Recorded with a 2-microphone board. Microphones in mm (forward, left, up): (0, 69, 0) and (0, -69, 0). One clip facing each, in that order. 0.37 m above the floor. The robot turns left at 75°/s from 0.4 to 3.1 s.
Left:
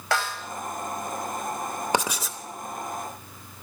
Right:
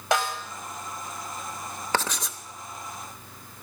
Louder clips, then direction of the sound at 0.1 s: Right 2 dB; 20° right (ahead or behind).